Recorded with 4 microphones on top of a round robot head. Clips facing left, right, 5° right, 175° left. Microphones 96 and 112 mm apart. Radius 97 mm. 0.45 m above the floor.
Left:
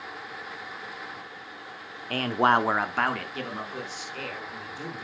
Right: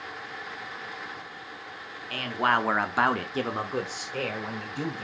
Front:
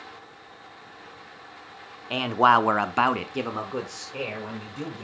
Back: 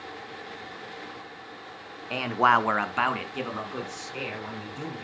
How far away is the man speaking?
About 1.2 m.